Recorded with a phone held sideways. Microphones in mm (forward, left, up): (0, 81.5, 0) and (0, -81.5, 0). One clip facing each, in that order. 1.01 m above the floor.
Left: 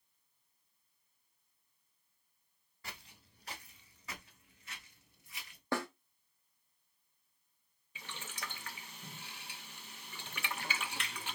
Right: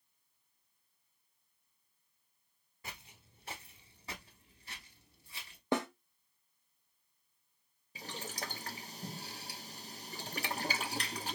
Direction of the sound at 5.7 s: 20° right (ahead or behind).